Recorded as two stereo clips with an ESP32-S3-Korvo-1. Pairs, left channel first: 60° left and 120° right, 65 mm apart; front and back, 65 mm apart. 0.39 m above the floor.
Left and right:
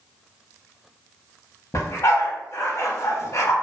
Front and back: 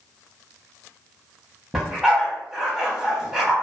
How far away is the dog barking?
About 0.7 m.